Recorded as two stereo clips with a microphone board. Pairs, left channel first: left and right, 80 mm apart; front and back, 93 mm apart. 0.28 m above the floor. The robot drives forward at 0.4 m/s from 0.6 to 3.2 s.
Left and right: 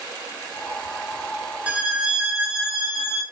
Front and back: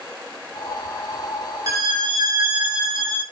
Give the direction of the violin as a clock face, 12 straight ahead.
5 o'clock.